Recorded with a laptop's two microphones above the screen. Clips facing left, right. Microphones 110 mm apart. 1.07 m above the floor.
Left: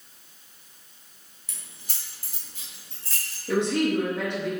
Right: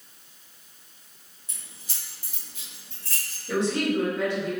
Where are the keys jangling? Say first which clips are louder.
Left 1 dB; 70° left (ahead or behind), 0.6 m; by 3.4 s 25° left (ahead or behind), 1.6 m.